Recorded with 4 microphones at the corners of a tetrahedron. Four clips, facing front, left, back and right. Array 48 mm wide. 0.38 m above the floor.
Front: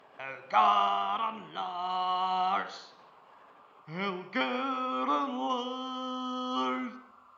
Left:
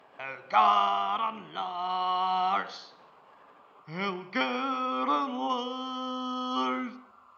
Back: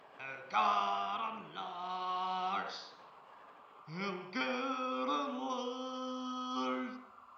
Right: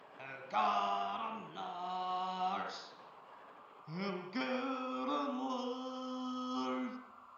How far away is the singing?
About 1.3 m.